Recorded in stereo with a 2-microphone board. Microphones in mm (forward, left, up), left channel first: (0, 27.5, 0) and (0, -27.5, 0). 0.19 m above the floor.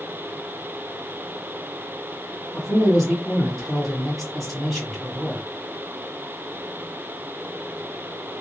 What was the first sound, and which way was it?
A man speaking, centre (ahead or behind).